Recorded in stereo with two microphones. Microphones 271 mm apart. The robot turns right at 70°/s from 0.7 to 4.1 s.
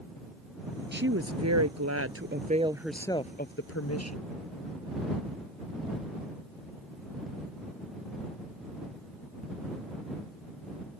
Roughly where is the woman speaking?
Behind right.